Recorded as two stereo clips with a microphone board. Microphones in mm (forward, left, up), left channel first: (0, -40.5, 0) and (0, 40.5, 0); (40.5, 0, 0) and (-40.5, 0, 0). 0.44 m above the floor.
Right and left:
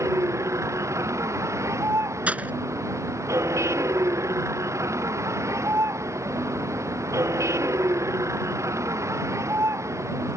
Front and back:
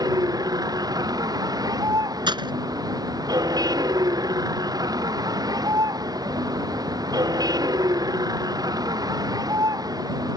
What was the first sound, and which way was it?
A vehicle, 145° left.